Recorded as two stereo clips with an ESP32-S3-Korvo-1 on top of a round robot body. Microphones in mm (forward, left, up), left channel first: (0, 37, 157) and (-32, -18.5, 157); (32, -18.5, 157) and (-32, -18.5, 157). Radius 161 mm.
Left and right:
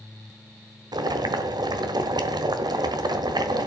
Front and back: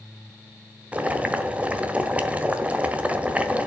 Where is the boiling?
110° right, 1.5 m.